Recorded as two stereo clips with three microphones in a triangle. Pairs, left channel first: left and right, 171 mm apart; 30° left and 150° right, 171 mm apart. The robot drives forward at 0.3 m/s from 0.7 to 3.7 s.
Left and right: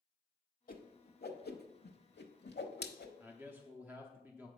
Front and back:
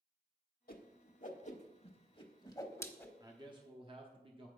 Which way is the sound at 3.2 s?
150° right.